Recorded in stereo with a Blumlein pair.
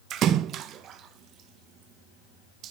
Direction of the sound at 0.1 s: 30° right.